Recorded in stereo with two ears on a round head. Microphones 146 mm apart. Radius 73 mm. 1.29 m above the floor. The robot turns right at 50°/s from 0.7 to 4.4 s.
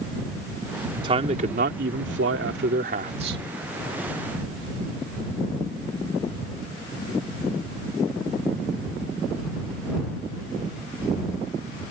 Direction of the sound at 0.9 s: 155° right.